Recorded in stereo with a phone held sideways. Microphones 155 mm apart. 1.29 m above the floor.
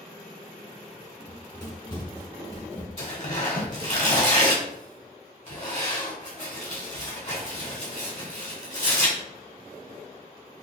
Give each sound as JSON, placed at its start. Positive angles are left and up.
{"t": 1.2, "sound": "running footsteps", "side_deg": 20, "distance_m": 1.3}
{"t": 3.0, "sound": "tearing paper", "side_deg": 50, "distance_m": 1.3}